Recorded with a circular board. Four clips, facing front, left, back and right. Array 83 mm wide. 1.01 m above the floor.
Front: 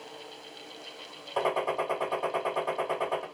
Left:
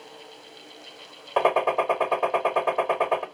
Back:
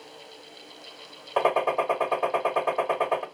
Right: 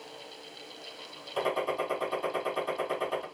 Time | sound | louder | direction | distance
1.4 | a gunshot | left 9 dB, back 5 dB | 120° left | 0.9 m